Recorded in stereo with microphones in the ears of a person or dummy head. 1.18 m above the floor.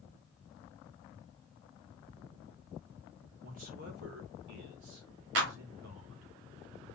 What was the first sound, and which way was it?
A man speaking, 40° right (ahead or behind).